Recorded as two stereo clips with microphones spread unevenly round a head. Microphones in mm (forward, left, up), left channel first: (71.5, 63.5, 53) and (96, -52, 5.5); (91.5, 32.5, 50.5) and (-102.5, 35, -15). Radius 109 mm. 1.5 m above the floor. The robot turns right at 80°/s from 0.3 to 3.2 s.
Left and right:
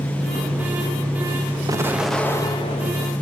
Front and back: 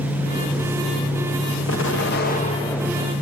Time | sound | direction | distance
1.7 | an explosion | 15° right | 1.5 m